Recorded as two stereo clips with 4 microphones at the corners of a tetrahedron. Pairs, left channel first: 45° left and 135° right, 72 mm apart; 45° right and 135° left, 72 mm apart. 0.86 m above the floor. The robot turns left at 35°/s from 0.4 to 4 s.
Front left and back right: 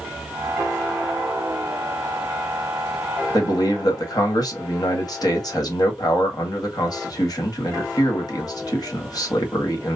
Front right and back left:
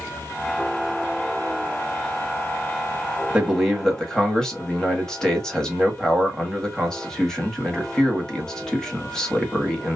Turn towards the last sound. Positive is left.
turn(degrees=35)